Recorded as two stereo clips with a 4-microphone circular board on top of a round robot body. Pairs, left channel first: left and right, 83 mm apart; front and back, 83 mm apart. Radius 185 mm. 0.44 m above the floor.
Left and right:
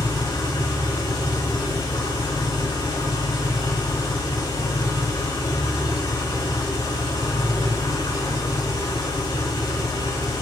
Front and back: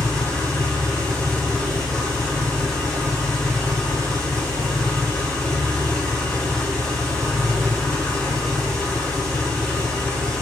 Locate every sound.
0.0 s an engine running: 80° left, 6 m